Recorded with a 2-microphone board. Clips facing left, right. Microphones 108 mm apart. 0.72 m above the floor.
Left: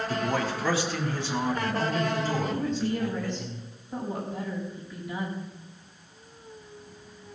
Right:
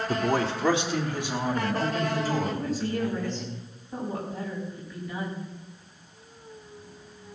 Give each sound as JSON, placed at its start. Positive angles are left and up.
{"t": 0.1, "sound": "a man speaking", "side_deg": -45, "distance_m": 1.0}
{"t": 2.4, "sound": "a woman speaking", "side_deg": 15, "distance_m": 4.5}